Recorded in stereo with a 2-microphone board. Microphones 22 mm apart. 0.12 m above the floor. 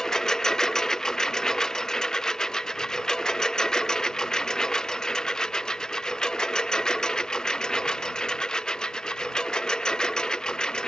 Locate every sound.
0.0 s a lawn mower: 20° left (ahead or behind); by 10.9 s 35° left (ahead or behind)